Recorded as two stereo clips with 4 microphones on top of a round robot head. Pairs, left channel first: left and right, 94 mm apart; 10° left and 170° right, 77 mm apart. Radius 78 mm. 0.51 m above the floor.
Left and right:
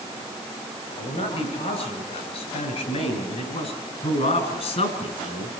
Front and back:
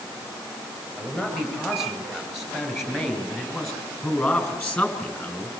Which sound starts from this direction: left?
A man speaking, at 1.0 s.